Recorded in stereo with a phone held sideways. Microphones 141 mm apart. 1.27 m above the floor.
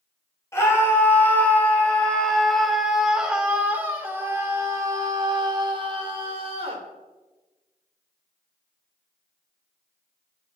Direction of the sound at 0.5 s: 20° left (ahead or behind).